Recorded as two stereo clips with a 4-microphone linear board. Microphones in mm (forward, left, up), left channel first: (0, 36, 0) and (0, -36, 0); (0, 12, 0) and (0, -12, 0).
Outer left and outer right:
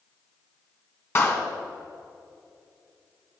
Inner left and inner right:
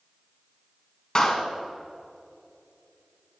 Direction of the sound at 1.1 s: 40° left (ahead or behind).